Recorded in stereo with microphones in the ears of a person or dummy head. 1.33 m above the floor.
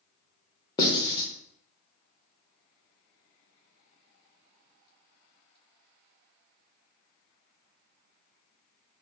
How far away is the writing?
About 0.7 m.